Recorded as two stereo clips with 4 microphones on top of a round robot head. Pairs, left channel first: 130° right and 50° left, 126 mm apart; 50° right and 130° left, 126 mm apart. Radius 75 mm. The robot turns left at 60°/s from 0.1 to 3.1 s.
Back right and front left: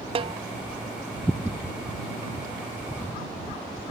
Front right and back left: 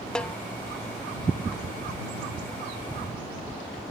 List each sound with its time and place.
0.1 s a snare drum: 30° left; by 0.4 s 20° left